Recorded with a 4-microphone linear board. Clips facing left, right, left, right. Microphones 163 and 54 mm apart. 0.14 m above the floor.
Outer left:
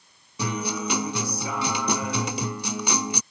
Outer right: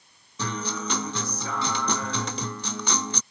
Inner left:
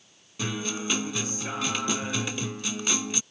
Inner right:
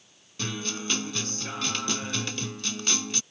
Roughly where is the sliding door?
I don't hear a sliding door.